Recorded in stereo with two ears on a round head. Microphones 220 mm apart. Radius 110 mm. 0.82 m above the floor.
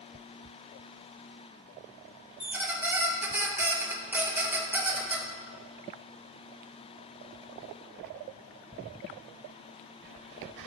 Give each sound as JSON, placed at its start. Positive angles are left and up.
{"t": 2.4, "sound": "a squeak", "side_deg": -10, "distance_m": 0.7}